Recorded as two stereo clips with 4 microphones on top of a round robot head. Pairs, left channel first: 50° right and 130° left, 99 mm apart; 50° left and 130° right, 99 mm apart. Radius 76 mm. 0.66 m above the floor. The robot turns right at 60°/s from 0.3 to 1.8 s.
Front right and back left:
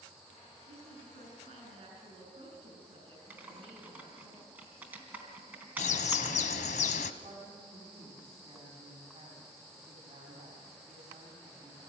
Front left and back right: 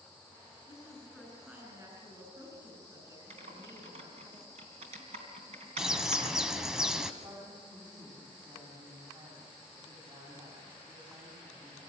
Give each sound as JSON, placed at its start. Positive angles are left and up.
{"t": 0.7, "sound": "a woman speaking", "azimuth_deg": 105, "distance_m": 8.0}
{"t": 3.3, "sound": "typing on a keyboard", "azimuth_deg": -155, "distance_m": 3.5}
{"t": 5.8, "sound": "a bird", "azimuth_deg": -45, "distance_m": 0.8}
{"t": 7.2, "sound": "a woman speaking", "azimuth_deg": -175, "distance_m": 6.0}